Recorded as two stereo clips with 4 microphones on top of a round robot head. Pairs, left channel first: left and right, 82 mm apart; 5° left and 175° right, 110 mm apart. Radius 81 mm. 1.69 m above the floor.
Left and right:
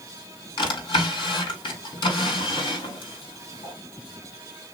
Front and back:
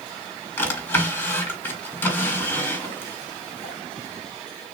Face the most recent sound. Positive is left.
turn(degrees=70)